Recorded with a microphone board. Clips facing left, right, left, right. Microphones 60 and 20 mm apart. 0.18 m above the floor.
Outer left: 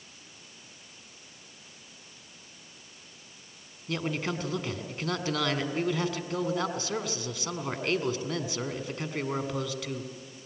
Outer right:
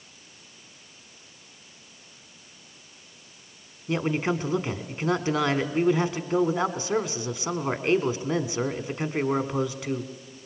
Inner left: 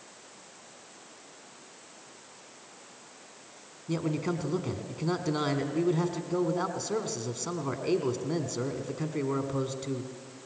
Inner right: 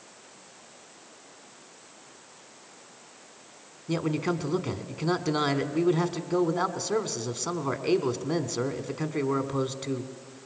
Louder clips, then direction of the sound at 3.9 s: Outer right 6 dB, inner right 3 dB; 25° right (ahead or behind).